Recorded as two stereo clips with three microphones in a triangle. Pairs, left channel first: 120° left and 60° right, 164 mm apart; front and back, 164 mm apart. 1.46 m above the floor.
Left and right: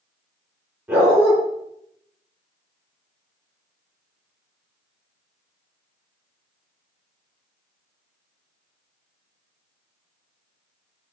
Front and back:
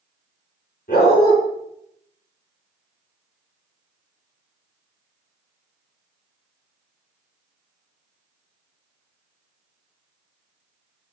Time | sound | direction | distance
0.9 | a dog barking | 20° left | 5 m